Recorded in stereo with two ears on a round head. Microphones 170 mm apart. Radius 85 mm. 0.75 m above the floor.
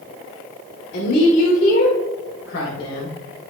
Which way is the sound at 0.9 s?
50° left (ahead or behind).